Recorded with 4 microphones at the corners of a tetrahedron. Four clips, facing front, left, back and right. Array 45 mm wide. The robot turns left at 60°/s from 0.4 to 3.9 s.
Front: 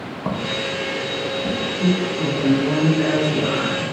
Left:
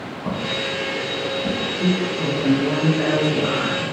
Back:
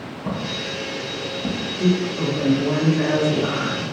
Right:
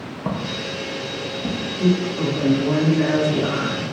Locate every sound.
0.2 s footsteps: 35° right, 0.8 m; by 1.7 s 170° right, 1.3 m
1.8 s a woman speaking: 155° right, 0.9 m; by 3.9 s 80° left, 0.9 m